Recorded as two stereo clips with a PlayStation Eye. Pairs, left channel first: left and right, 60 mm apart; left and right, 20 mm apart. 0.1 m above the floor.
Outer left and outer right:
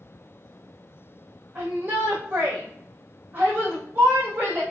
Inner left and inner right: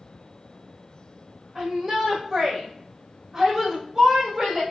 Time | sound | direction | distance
1.6 | a shout | 35° right (ahead or behind) | 4 m